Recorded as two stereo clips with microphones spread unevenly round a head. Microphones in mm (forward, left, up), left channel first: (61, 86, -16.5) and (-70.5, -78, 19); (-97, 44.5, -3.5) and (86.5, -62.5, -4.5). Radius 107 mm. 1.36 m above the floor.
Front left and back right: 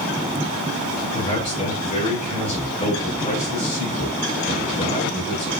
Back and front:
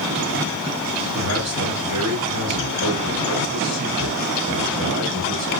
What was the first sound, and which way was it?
A man speaking, 10° right.